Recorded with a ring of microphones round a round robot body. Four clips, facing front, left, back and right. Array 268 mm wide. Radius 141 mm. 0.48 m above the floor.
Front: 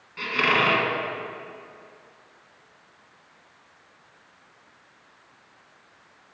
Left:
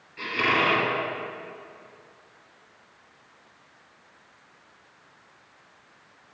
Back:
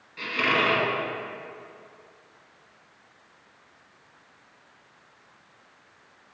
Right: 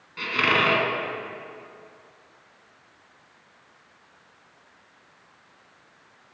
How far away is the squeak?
About 1.2 m.